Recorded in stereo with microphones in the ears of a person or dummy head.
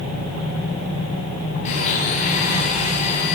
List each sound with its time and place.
1.6 s a blender: 35° left (ahead or behind), 10 m